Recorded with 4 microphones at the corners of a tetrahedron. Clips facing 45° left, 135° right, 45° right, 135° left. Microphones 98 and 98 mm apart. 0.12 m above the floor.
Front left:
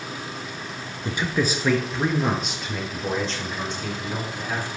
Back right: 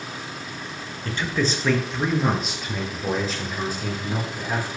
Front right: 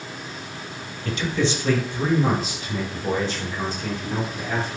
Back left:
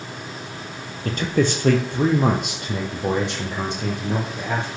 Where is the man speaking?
115° left, 2.5 m; by 4.7 s 145° left, 6 m.